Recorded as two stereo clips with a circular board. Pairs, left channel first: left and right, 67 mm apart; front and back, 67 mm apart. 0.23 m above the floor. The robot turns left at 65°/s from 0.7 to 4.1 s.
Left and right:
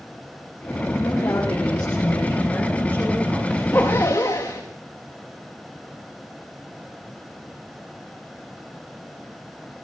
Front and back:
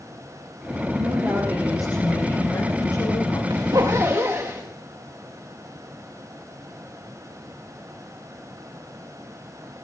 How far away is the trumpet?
No trumpet in this recording.